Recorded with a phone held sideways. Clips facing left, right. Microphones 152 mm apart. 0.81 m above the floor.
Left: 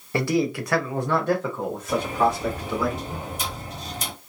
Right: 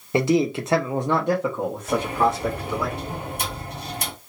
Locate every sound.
0.1 s a man speaking: 20° right (ahead or behind), 0.6 m; by 2.9 s 5° right (ahead or behind), 1.5 m
1.9 s a sliding door: 60° right (ahead or behind), 1.3 m